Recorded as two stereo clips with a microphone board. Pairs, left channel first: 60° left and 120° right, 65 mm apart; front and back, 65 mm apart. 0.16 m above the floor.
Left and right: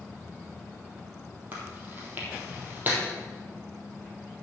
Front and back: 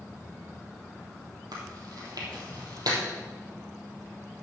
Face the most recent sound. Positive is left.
turn(degrees=180)